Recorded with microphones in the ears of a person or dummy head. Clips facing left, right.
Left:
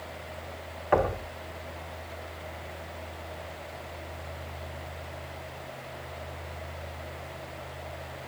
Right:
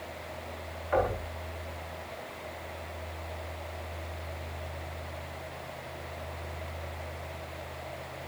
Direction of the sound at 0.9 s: 85° left.